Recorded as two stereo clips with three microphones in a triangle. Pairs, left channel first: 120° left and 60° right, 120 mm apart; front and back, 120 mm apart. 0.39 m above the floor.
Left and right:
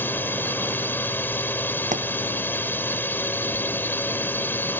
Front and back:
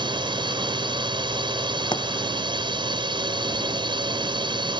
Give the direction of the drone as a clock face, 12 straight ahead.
6 o'clock.